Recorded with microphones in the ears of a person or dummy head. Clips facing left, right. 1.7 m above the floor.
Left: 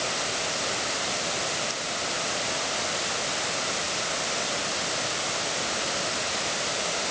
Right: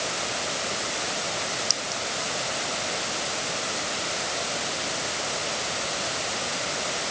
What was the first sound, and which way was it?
A clink, 70° right (ahead or behind).